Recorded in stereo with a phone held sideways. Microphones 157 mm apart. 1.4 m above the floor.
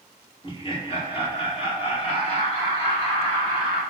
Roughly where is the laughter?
Left.